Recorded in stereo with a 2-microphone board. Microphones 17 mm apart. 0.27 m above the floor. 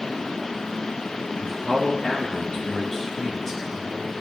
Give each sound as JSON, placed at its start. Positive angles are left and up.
{"t": 1.4, "sound": "a man speaking", "side_deg": 70, "distance_m": 2.5}